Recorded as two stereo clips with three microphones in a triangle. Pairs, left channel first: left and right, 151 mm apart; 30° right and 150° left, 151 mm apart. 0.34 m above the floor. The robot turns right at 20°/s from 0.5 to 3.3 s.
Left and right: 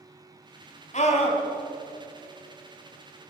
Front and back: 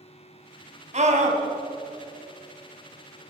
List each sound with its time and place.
0.9 s a scream: 120° left, 2.5 m; by 1.4 s 130° left, 2.5 m